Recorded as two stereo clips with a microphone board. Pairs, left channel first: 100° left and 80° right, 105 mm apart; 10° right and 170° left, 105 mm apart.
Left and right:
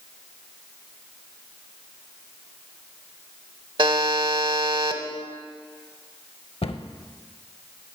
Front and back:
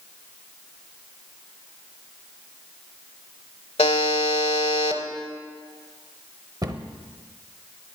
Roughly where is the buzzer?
Ahead right.